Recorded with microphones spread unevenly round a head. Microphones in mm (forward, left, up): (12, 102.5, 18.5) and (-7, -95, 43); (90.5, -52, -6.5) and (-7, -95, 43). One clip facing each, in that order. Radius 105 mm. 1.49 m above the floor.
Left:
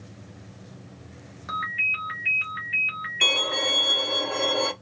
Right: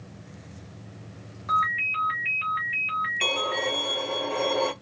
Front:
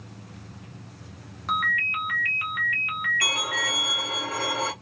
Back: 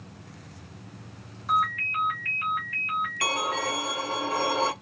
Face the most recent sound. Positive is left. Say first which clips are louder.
# right 1 dB, back 3 dB
turn(degrees=170)